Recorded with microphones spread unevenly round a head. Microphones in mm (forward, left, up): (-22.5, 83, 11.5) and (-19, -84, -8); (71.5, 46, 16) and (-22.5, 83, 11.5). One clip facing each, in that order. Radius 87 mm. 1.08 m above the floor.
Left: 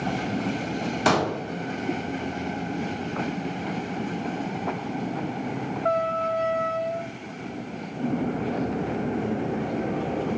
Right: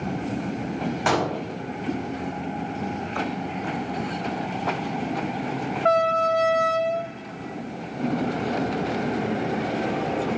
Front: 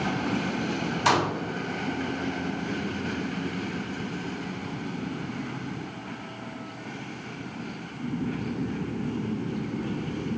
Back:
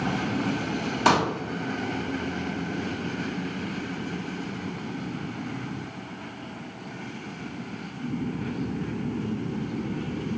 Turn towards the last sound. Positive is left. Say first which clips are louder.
# left 1 dB, back 2 dB
turn(degrees=135)